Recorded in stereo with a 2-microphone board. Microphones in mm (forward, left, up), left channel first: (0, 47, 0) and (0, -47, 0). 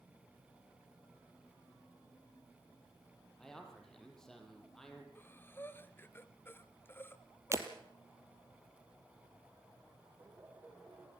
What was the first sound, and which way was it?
A man speaking, 5° left (ahead or behind).